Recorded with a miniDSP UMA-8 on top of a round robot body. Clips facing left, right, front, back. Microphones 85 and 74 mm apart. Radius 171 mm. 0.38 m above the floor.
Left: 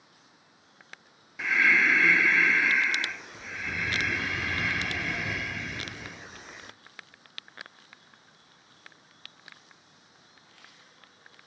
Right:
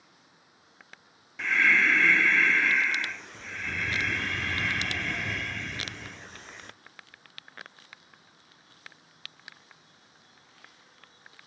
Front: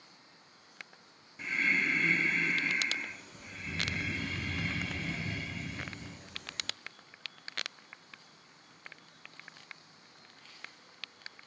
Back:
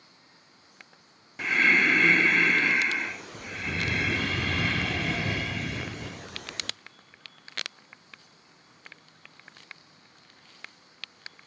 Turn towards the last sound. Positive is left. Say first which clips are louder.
# even, back 9 dB
turn(degrees=175)